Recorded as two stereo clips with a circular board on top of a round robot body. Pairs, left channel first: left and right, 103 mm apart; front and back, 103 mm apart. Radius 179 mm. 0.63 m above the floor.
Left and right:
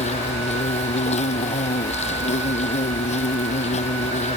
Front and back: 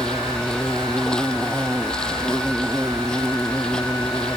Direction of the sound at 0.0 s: 85° left.